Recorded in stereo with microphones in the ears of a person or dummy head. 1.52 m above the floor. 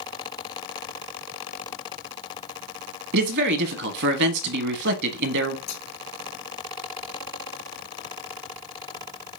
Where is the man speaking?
60° right (ahead or behind), 1.1 m.